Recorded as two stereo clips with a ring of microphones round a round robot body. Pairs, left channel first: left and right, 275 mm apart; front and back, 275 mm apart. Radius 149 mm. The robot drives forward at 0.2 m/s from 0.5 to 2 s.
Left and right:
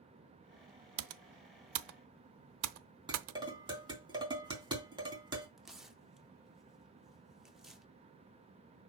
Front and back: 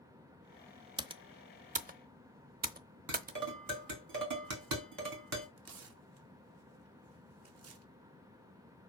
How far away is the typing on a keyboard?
About 0.7 m.